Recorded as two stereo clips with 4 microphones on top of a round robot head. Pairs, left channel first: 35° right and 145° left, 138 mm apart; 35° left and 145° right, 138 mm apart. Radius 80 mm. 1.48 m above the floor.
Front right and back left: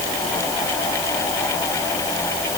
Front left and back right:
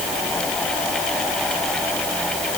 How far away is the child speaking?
I don't hear a child speaking.